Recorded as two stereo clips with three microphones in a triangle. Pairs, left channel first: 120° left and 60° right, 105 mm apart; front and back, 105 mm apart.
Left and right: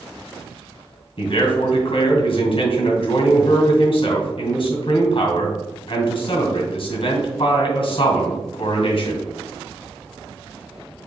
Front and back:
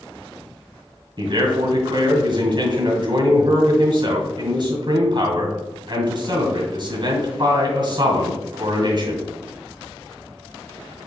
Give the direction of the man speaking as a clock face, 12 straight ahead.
7 o'clock.